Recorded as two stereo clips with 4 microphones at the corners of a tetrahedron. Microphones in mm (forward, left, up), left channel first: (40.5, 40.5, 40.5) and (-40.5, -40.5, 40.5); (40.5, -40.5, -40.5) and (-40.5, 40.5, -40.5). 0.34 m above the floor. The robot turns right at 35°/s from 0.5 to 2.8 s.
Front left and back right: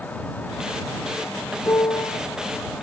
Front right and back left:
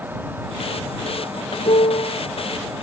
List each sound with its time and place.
1.6 s a piano: 20° right; by 2.2 s straight ahead